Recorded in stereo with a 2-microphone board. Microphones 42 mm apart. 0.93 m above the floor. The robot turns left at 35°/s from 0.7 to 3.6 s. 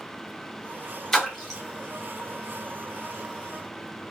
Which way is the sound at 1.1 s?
15° left (ahead or behind).